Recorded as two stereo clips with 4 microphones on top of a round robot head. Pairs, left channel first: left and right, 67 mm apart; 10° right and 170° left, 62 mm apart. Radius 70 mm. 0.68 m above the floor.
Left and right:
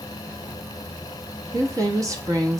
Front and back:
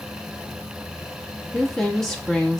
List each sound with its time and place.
1.5 s a woman speaking: 90° right, 1.0 m